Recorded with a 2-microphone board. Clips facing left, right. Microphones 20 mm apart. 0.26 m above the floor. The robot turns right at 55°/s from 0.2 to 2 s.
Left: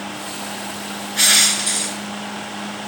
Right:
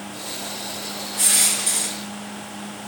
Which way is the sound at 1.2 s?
120° left.